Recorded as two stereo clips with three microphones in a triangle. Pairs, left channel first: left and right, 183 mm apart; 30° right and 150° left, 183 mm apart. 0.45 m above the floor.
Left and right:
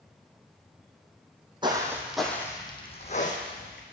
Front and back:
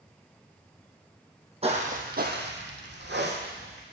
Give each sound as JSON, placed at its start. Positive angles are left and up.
{"t": 1.6, "sound": "footsteps", "azimuth_deg": -155, "distance_m": 1.2}